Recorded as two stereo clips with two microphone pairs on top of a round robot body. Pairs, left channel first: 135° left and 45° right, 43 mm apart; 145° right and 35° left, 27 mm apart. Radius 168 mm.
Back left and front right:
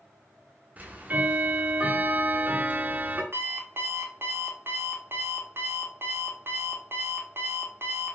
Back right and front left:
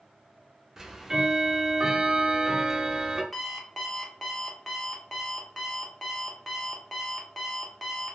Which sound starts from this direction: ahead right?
An alarm clock, at 3.3 s.